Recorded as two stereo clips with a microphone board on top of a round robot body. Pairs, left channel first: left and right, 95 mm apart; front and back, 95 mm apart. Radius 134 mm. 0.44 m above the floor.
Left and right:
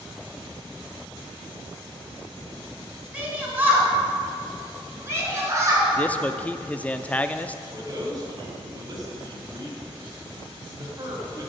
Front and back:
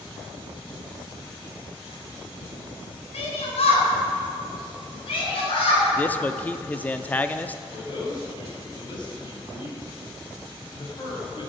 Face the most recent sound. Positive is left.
turn(degrees=-40)